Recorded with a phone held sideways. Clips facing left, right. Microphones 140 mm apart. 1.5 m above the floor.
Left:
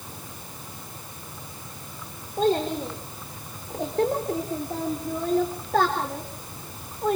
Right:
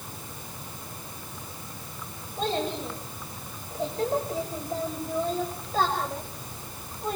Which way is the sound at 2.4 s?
50° left (ahead or behind).